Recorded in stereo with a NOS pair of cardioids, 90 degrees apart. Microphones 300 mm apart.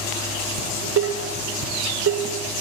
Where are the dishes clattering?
55° right, 2.5 m.